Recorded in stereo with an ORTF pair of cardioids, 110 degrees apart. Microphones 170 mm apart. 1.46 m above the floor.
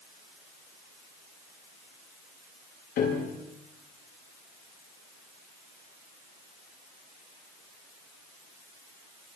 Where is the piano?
65° left, 8 m.